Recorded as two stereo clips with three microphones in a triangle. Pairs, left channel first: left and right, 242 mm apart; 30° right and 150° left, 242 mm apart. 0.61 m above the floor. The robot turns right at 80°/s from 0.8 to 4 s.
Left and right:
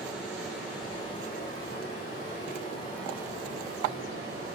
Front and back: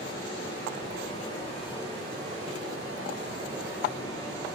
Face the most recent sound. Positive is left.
turn(degrees=-105)